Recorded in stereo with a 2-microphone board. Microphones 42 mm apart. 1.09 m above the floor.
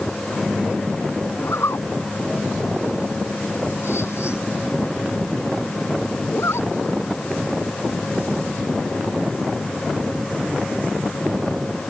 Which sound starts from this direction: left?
A zipper, at 1.4 s.